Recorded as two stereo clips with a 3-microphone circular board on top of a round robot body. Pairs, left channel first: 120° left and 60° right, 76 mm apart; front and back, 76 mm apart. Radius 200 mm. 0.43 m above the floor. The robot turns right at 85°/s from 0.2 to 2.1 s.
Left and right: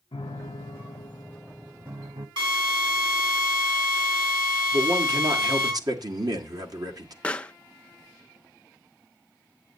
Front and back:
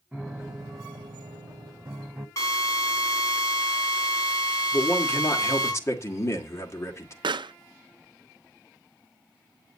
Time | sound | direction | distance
0.1 | a piano | 95° left | 0.8 m
2.4 | a drill | 50° right | 6.5 m
4.7 | a man speaking | 45° right | 2.5 m
7.2 | a pop | 165° right | 0.5 m